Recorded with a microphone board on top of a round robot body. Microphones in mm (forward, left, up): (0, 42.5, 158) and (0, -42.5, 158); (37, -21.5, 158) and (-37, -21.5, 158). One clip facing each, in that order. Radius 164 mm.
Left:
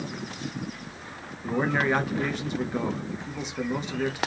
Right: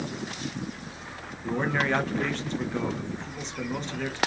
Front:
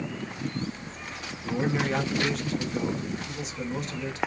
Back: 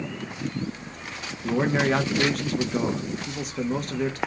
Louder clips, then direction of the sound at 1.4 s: Left 2 dB, back 5 dB; 170° left.